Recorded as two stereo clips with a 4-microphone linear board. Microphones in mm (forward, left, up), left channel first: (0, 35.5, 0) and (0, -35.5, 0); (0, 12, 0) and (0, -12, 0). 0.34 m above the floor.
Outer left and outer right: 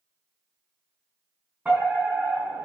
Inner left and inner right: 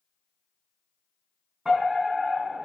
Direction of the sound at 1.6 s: 20° right (ahead or behind).